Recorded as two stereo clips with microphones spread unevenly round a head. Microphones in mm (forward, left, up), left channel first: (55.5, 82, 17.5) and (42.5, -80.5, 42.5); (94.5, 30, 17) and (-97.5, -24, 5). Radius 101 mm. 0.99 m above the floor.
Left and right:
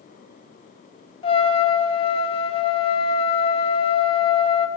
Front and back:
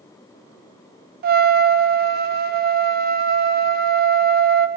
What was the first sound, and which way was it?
A trumpet, 150° left.